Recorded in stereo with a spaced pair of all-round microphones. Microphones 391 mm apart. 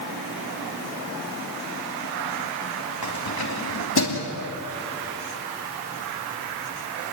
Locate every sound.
3.0 s keys jangling: 65° left (ahead or behind), 3.5 m; by 4.2 s 70° left (ahead or behind), 2.5 m